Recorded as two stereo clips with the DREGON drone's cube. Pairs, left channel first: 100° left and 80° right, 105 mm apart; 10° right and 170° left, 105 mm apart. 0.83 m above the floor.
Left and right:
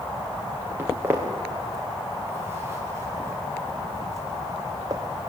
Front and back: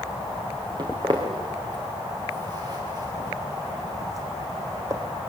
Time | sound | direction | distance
0.8 | footsteps | 145° right | 4.5 m